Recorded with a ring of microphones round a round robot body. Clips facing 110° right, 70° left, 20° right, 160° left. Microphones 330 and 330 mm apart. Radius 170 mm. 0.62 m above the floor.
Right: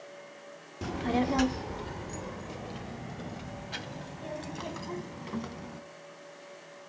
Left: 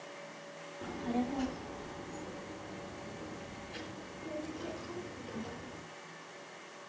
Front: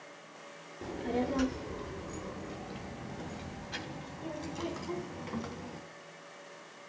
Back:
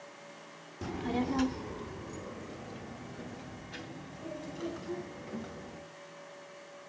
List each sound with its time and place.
0.8 s a child speaking: 145° right, 0.8 m; by 5.8 s 90° right, 3.5 m